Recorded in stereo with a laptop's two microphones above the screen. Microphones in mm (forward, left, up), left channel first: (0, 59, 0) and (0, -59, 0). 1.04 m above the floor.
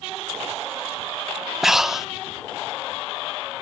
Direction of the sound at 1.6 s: 5° right (ahead or behind).